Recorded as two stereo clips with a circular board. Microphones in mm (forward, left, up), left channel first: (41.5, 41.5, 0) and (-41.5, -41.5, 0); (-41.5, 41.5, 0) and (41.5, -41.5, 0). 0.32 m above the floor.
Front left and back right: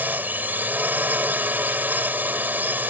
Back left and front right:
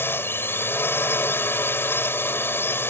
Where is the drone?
175° left.